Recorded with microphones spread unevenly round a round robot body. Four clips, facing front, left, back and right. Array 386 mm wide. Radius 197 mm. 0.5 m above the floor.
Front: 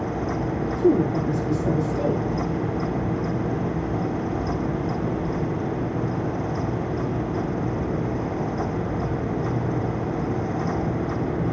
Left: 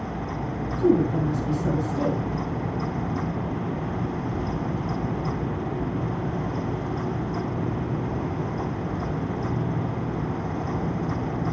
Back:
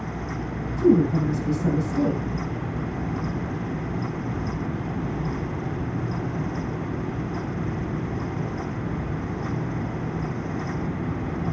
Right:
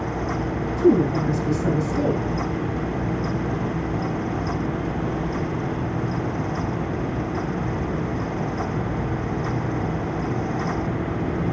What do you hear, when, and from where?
0.8 s a woman speaking: 170° right, 6 m